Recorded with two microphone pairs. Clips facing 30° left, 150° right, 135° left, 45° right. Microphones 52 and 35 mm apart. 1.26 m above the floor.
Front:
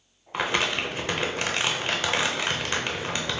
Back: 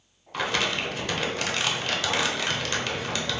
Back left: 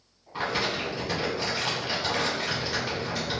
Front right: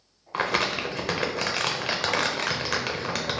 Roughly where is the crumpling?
Ahead right.